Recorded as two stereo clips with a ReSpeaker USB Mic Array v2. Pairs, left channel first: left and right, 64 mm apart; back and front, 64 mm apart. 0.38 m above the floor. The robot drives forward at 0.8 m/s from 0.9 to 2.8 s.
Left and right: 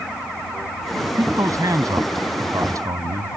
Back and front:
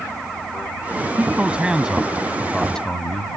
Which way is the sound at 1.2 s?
65° right.